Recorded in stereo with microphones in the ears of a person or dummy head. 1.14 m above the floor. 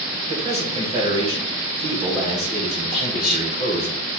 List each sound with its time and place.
0.3 s a man speaking: 30° right (ahead or behind), 3 m
2.9 s whispering: 5° right (ahead or behind), 3 m